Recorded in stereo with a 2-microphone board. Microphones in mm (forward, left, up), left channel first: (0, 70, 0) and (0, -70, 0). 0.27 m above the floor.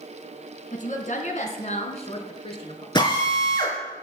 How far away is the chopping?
No chopping in this recording.